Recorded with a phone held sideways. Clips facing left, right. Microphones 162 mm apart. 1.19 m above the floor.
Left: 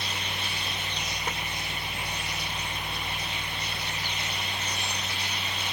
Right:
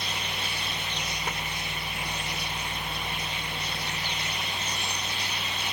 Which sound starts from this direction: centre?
A fan, at 0.0 s.